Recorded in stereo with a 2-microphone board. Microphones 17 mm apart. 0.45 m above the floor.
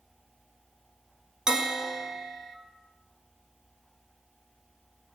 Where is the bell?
40° right (ahead or behind), 1.5 m.